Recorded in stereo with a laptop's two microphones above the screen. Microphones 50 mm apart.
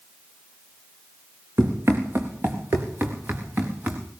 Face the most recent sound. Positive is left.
turn(degrees=-35)  # may be behind; listen again after turning